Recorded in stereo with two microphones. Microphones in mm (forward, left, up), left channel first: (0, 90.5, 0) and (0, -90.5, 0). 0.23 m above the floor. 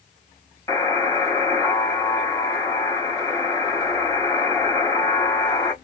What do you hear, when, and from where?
0.7 s a buzzer: 15° left (ahead or behind), 1.2 m